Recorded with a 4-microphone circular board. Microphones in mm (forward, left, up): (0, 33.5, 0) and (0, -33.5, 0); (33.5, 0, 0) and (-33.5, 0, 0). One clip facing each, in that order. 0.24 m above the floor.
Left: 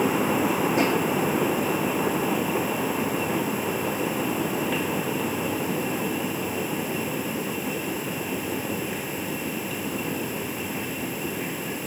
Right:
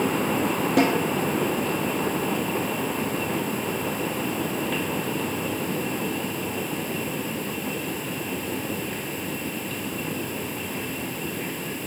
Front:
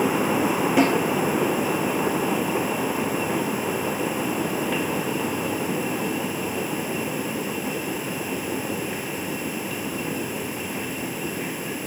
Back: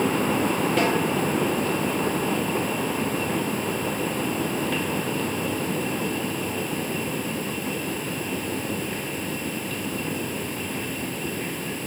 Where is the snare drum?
80° right, 4 m.